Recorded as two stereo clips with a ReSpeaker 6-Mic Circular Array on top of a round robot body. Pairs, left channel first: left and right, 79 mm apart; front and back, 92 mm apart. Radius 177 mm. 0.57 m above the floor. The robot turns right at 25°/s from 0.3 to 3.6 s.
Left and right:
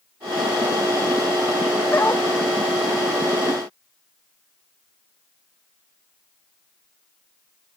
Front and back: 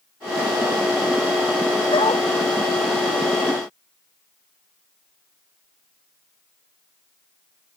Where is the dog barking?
30° left; by 2.3 s 35° left.